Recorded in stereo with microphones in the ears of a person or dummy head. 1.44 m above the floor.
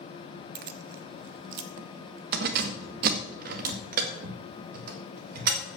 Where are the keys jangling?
60° right (ahead or behind), 0.5 m; by 5.6 s 55° right (ahead or behind), 3 m.